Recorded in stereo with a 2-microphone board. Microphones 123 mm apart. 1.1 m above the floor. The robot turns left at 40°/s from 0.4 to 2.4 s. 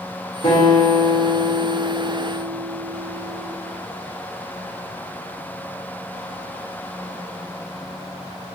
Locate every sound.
0.4 s a guitar: 50° left, 1.3 m; by 3.5 s 30° right, 1.3 m